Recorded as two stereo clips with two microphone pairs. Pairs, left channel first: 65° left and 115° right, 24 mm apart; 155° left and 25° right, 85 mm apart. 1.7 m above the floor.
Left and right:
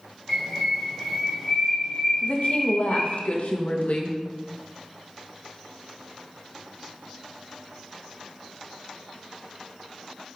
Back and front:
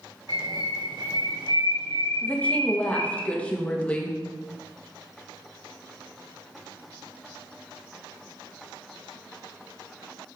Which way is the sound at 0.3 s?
25° right.